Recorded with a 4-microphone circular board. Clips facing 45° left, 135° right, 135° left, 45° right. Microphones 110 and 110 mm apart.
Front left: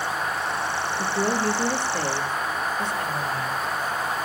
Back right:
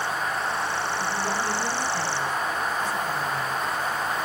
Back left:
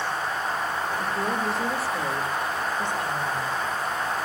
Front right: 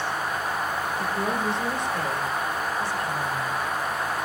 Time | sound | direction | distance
1.0 | a woman speaking | 35° left | 3 m